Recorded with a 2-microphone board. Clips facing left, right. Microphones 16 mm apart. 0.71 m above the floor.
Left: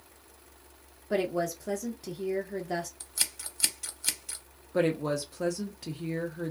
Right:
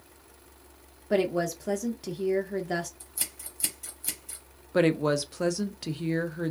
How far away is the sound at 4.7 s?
About 0.5 m.